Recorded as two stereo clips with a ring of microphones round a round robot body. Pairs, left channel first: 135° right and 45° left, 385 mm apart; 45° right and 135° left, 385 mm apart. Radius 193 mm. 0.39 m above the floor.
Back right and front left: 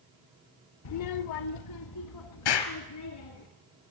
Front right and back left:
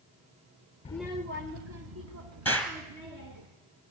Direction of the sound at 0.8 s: 110° right.